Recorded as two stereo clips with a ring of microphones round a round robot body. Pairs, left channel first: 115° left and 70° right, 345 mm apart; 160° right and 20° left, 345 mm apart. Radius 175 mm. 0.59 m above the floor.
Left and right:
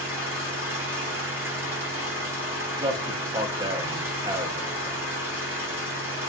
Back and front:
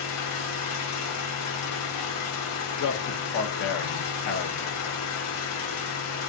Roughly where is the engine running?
Behind right.